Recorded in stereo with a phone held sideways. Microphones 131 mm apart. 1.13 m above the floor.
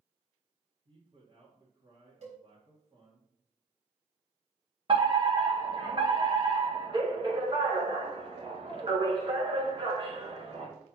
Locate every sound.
0.8 s a man speaking: 45° right (ahead or behind), 2 m
2.2 s a cowbell: 60° right (ahead or behind), 3.5 m
4.9 s a fire alarm: 40° right (ahead or behind), 2.0 m